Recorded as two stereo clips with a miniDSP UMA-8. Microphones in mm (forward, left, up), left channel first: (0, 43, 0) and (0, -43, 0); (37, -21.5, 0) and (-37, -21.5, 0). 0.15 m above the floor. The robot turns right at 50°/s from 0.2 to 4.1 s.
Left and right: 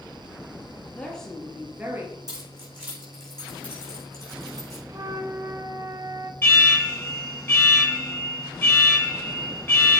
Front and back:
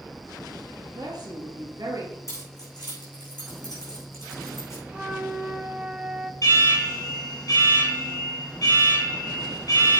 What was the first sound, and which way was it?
A woman speaking, 160° left.